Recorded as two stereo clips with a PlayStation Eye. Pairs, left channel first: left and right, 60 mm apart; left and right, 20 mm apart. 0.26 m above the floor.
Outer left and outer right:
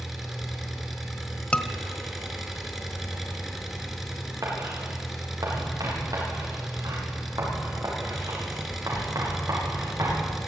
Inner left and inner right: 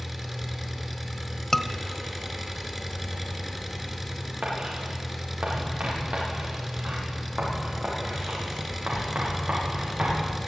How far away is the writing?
About 9 m.